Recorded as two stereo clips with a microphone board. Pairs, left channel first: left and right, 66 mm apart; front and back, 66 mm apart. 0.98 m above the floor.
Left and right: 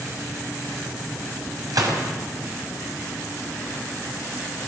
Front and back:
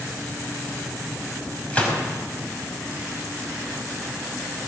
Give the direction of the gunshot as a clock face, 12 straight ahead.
2 o'clock.